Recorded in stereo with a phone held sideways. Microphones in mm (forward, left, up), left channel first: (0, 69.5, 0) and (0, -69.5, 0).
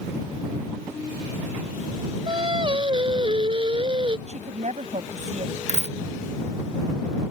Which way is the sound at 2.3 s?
35° right (ahead or behind).